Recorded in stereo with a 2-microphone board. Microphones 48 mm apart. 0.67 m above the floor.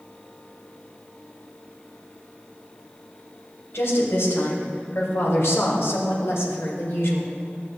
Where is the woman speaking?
70° left (ahead or behind), 3.5 m; by 7.3 s 65° left (ahead or behind), 2 m.